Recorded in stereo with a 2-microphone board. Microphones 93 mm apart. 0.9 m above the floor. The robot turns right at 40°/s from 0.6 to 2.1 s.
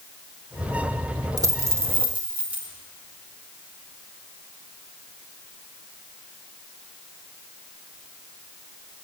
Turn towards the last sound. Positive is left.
turn(degrees=-20)  # may be behind; listen again after turning